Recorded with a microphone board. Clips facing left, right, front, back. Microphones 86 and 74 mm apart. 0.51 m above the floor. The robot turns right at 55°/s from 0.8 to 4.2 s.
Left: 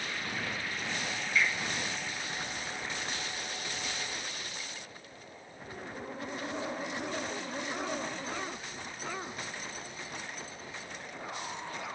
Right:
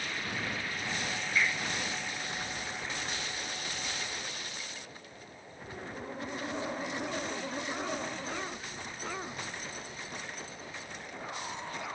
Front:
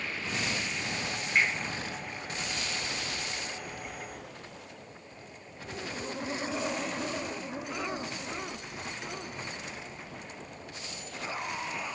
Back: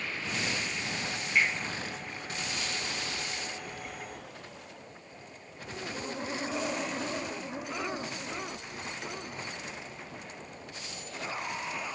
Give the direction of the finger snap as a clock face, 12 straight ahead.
2 o'clock.